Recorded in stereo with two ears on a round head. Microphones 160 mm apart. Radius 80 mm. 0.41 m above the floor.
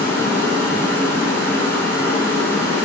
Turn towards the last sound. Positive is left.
turn(degrees=15)  # may be behind; listen again after turning